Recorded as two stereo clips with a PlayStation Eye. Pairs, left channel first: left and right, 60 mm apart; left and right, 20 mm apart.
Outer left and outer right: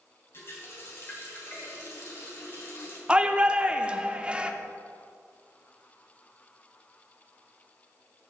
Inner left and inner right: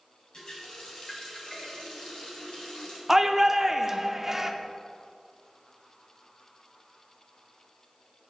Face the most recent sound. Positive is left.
turn(degrees=-20)  # may be behind; listen again after turning